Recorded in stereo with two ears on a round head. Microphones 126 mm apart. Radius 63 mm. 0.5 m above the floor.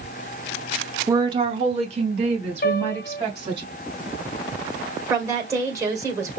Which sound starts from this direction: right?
A woman speaking, at 5.1 s.